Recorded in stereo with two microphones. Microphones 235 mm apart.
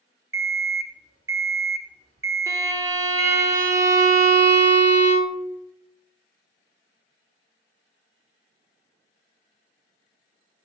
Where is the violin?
15° right (ahead or behind), 0.6 m.